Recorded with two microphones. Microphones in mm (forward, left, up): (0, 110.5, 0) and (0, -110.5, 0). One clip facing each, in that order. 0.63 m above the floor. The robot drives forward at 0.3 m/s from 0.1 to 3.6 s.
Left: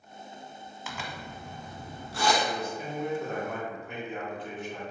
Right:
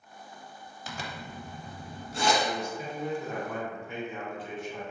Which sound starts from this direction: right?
A zipper, at 0.9 s.